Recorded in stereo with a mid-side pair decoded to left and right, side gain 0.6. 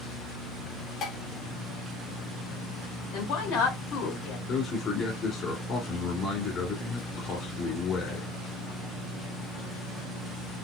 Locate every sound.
1.0 s dishes clattering: 55° left, 1.2 m
3.1 s a woman speaking: 70° left, 3 m
4.5 s a man speaking: 40° left, 2.5 m